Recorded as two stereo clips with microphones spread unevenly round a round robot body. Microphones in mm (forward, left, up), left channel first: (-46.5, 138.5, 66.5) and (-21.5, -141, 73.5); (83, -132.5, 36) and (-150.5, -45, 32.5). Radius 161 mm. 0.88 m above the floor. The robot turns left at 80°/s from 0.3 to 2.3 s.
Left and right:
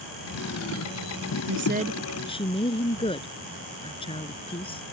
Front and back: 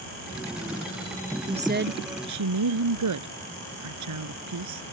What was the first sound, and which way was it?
A woman speaking, 125° right.